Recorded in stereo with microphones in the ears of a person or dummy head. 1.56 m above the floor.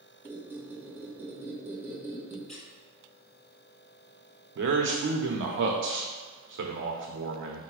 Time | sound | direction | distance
0.2 | a squeak | 10° right (ahead or behind) | 1.1 m
2.5 | a squeak | 5° left (ahead or behind) | 1.6 m
4.5 | a man speaking | 65° right (ahead or behind) | 0.8 m